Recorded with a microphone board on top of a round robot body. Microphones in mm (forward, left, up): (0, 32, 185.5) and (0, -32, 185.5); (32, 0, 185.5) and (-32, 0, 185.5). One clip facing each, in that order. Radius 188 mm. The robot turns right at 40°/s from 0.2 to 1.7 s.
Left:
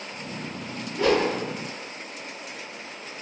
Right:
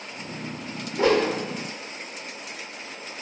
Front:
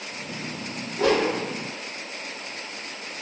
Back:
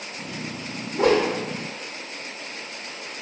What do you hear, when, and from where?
0.9 s a whoosh: 155° right, 1.1 m; by 1.3 s 140° right, 1.1 m